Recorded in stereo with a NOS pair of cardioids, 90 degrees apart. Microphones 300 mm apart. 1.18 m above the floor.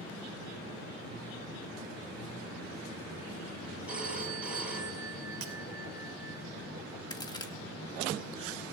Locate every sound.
3.9 s a phone ringing: 5° right, 6.5 m
5.4 s breaking glass: 45° right, 2.5 m
7.1 s a crack: 15° left, 1.8 m